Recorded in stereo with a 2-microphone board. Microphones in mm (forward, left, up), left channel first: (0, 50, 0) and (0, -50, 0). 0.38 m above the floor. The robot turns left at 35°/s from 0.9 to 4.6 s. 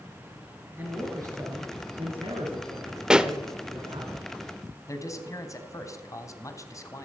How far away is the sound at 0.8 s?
About 5 m.